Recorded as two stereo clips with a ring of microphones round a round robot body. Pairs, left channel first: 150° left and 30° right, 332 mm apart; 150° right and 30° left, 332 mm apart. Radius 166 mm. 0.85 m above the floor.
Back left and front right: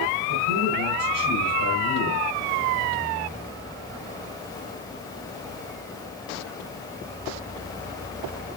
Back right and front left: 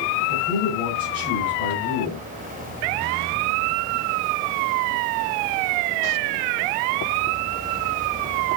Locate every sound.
0.3 s a man speaking: 80° right, 3.5 m